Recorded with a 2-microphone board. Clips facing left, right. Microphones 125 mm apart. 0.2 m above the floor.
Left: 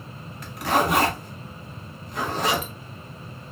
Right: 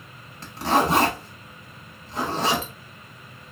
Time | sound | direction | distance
0.4 | a zipper | 30° right (ahead or behind) | 0.9 m